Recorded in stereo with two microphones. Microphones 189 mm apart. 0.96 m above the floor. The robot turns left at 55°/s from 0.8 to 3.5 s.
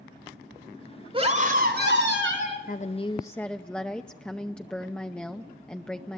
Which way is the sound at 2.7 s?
50° left.